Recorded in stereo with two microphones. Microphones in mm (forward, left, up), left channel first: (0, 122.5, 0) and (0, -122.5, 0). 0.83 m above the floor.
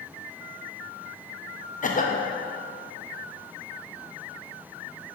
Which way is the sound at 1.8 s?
35° left (ahead or behind).